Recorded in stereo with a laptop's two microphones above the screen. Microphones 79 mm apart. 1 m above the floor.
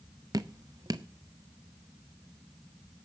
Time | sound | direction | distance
0.3 | dripping | 50° right (ahead or behind) | 0.7 m